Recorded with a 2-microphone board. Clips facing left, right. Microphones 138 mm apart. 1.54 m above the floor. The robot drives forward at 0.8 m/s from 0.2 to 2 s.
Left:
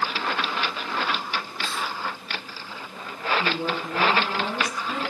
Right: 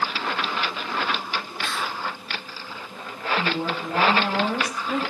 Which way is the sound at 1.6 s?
70° right (ahead or behind).